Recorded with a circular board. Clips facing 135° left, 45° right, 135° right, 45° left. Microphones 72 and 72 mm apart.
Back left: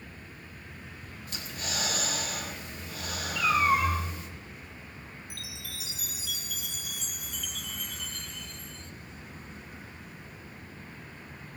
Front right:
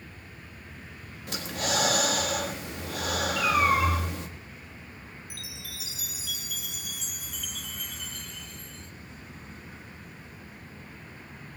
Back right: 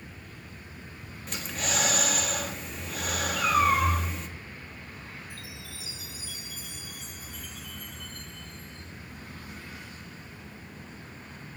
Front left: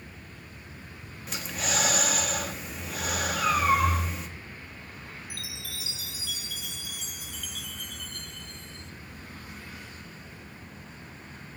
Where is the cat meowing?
110° right, 7.5 m.